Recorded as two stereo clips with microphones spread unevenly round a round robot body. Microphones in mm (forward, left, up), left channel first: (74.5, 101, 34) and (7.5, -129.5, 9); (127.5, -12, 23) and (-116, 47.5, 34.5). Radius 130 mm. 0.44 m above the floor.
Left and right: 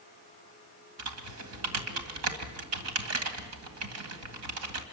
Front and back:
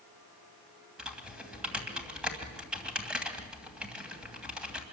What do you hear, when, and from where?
1.0 s typing on a keyboard: 105° right, 2.5 m